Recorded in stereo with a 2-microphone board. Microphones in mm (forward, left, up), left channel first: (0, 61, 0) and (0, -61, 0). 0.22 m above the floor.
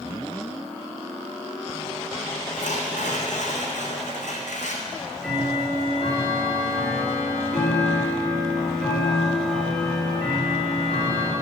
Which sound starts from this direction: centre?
Ticking, at 4.9 s.